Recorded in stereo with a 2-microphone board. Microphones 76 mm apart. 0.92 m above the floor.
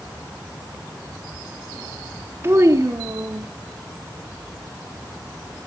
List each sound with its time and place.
2.4 s a child speaking: 35° right (ahead or behind), 0.9 m; by 3.5 s 55° right (ahead or behind), 1.3 m